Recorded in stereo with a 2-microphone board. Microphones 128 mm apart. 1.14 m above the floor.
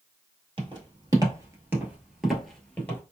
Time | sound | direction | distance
0.6 | footsteps | 35° right (ahead or behind) | 1.4 m